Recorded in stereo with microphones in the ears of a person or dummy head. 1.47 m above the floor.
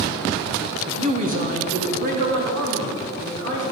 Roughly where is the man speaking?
Right.